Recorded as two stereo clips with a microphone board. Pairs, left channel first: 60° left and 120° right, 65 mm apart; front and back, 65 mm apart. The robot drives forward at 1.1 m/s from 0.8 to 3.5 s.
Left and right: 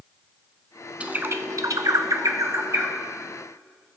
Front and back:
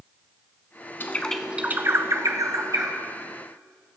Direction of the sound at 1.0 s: 55° right.